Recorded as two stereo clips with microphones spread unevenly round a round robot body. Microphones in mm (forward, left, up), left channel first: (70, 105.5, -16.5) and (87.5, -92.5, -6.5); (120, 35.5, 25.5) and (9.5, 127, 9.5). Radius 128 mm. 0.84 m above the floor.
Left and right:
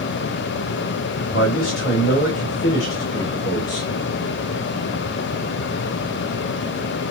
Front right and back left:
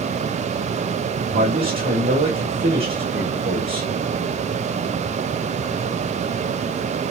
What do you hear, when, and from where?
1.3 s a man speaking: 140° left, 2.5 m